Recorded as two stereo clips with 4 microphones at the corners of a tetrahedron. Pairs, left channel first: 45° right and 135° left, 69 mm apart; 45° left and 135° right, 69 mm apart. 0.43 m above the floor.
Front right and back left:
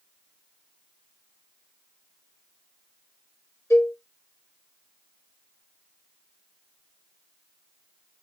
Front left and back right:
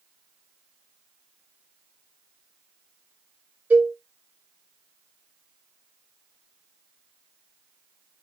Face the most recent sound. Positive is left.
turn(degrees=-80)